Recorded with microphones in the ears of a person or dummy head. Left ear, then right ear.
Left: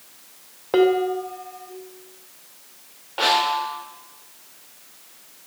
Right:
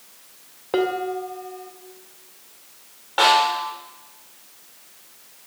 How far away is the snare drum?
About 3.5 m.